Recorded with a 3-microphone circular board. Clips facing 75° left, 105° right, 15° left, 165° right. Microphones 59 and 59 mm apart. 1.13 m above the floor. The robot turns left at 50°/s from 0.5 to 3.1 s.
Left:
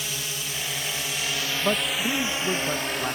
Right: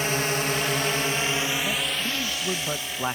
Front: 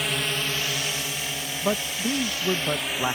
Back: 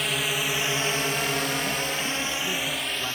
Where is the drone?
75° right; by 3.1 s 85° left.